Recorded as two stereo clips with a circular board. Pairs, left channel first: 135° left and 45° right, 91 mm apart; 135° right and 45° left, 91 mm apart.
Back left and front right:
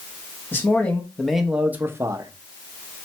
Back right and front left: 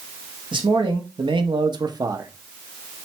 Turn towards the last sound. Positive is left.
turn(degrees=-5)